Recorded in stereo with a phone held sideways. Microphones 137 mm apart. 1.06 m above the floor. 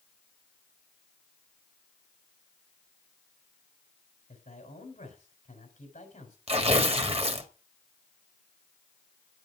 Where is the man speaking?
55° left (ahead or behind), 4 m.